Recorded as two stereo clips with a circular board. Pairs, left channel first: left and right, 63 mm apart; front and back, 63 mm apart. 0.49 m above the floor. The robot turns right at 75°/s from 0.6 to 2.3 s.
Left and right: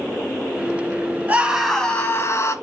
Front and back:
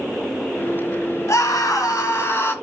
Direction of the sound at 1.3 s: 25° right.